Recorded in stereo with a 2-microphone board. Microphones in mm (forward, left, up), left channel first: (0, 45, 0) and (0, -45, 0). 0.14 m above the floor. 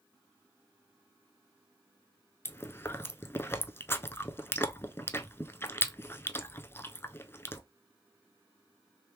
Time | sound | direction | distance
2.5 | chewing | 25° left (ahead or behind) | 0.5 m